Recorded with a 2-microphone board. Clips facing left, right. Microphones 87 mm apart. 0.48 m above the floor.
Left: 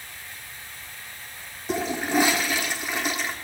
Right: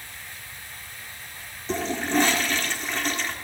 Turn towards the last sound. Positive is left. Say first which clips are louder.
# left 1 dB
turn(degrees=10)  # may be behind; listen again after turning